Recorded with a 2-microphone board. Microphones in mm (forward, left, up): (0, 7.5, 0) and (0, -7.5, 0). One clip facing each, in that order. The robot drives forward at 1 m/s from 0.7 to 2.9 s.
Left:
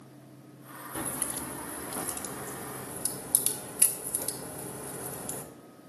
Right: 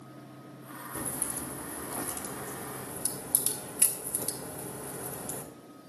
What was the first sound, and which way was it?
A crack, 85° left.